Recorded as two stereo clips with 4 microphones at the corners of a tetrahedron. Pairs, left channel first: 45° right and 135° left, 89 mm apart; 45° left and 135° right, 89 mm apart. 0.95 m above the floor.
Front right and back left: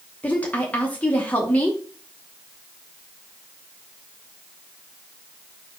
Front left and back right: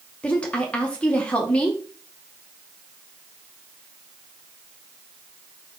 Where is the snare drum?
I don't hear a snare drum.